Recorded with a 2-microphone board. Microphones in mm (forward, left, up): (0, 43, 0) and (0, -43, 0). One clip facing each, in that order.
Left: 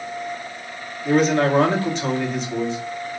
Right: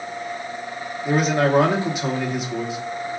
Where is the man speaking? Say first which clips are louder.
Left 2 dB; 10° right (ahead or behind), 1.1 m.